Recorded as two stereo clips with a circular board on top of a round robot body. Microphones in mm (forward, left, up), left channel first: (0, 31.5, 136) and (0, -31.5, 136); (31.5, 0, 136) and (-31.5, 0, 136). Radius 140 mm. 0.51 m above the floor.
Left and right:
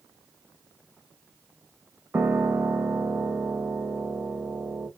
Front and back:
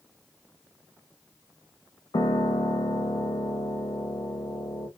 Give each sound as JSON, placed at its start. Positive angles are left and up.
{"t": 2.1, "sound": "a piano", "azimuth_deg": -20, "distance_m": 0.6}